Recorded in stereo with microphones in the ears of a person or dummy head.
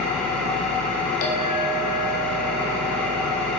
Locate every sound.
0.0 s an engine running: 10° left (ahead or behind), 2 m
1.2 s a clink: 50° left (ahead or behind), 1.8 m